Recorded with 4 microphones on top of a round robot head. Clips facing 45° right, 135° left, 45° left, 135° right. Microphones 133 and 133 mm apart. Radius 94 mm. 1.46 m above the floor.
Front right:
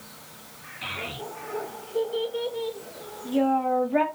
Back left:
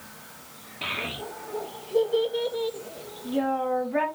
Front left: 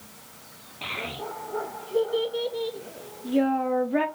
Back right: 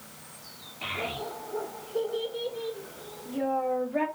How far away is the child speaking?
About 1.7 m.